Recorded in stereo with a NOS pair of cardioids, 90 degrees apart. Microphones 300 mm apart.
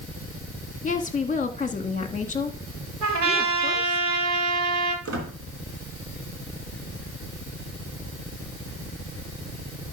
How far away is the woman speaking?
About 1.7 m.